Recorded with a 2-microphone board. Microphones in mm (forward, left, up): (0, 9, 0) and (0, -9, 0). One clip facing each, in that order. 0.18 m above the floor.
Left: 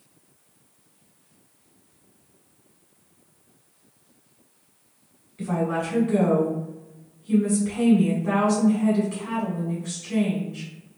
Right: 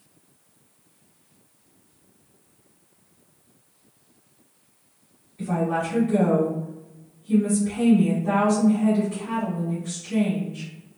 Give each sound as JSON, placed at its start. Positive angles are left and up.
{"t": 5.4, "sound": "a woman speaking", "side_deg": 35, "distance_m": 1.4}